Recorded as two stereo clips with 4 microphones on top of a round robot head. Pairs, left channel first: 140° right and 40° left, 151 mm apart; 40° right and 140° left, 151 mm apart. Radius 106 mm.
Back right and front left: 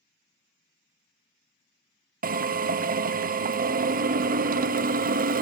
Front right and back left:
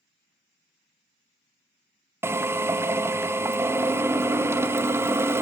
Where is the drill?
65° left, 0.8 m.